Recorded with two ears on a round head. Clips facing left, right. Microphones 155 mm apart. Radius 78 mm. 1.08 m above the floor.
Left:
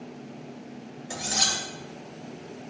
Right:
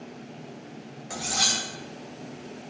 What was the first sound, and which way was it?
Cutlery clinking, 20° left (ahead or behind).